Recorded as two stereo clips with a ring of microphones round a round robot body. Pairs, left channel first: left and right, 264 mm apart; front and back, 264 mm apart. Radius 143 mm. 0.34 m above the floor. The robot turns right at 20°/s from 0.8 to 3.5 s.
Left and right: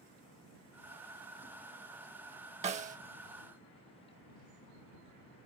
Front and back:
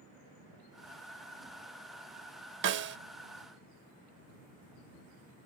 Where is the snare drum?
150° right; by 3.0 s 145° right.